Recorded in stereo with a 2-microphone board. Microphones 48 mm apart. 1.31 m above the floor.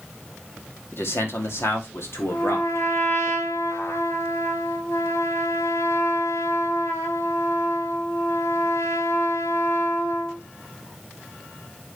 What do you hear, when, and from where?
0.9 s a man speaking: 60° left (ahead or behind), 2.5 m; by 3.3 s 65° left (ahead or behind), 3.5 m
2.3 s a trumpet: 65° left (ahead or behind), 2 m